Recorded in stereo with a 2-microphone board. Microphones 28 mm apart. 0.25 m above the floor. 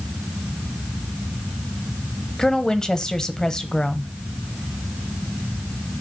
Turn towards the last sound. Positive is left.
turn(degrees=25)  # may be behind; listen again after turning